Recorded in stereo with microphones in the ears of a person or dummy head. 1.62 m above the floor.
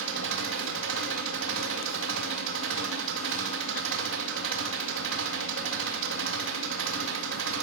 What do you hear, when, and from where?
0.0 s an engine running: 70° right (ahead or behind), 1.9 m